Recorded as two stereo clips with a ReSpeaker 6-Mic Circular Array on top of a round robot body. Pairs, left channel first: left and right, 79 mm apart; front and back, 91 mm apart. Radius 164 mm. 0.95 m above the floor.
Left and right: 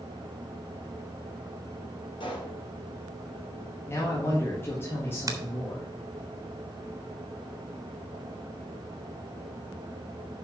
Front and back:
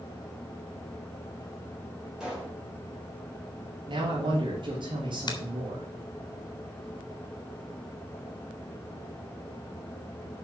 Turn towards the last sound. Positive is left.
turn(degrees=-45)